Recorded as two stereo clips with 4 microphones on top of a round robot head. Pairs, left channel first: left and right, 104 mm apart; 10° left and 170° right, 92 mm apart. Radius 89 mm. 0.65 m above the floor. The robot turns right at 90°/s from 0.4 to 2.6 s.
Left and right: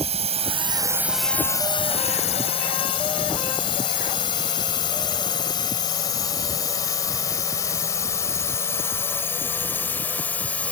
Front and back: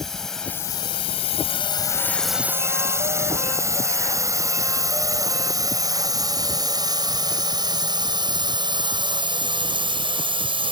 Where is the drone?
75° right; by 10.7 s 170° left.